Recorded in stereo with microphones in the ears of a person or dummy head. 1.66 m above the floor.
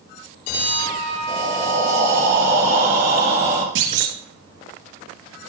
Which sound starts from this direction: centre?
Breathing, at 1.3 s.